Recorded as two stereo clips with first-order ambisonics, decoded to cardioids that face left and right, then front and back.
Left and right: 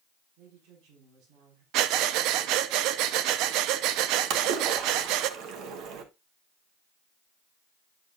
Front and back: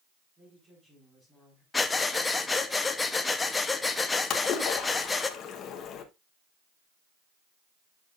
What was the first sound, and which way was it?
A woman speaking, 110° right.